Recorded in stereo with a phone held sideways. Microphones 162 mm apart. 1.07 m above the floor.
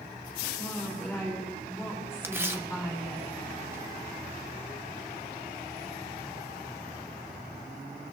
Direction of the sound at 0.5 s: 15° left (ahead or behind).